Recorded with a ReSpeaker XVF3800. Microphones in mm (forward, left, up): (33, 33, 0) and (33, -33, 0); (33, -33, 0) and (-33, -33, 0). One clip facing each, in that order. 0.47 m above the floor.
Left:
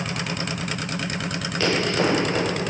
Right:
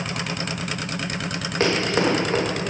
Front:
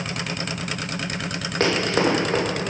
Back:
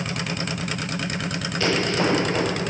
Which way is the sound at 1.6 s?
35° right.